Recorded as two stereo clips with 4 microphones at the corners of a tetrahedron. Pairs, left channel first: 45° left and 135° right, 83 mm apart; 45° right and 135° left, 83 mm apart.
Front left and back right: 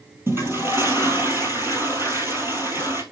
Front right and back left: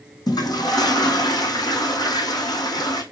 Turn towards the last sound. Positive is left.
turn(degrees=-80)